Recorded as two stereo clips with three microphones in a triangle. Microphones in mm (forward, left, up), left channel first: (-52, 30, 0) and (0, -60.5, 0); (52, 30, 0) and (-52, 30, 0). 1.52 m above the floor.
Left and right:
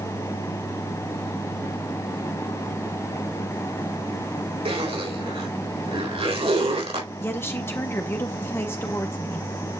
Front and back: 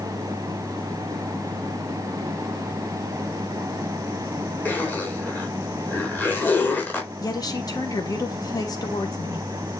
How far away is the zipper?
About 3.5 m.